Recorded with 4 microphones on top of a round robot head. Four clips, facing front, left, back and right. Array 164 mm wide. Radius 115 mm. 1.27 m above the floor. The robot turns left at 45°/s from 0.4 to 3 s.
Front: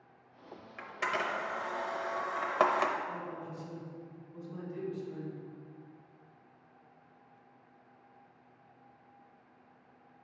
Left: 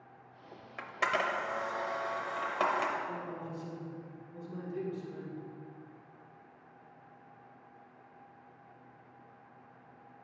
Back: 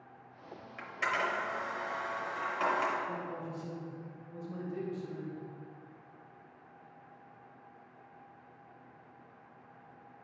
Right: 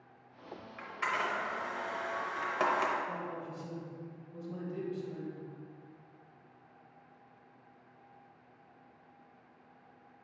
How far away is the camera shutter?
About 0.6 m.